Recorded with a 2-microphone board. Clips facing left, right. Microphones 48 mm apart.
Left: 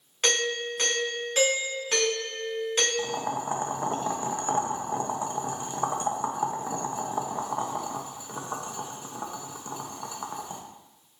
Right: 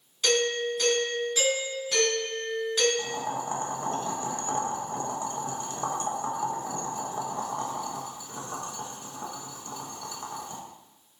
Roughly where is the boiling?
Left.